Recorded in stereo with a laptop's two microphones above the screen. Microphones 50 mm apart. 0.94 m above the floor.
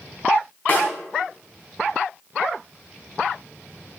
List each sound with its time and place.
0.7 s a snare drum: 35° left (ahead or behind), 3.5 m